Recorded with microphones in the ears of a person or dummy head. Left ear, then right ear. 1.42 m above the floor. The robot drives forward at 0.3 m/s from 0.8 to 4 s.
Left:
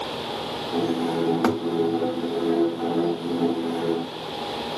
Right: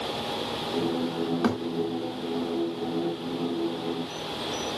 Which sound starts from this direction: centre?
A thud, at 1.4 s.